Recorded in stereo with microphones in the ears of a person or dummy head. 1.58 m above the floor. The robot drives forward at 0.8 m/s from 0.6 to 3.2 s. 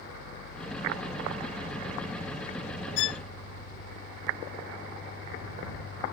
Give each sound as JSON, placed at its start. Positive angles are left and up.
{"t": 3.0, "sound": "a violin", "side_deg": 65}